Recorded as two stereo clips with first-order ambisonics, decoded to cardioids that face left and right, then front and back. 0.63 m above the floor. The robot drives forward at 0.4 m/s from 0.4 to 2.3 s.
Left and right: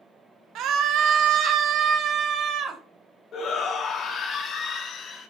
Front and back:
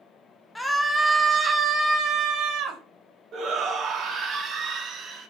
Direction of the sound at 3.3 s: 135° left.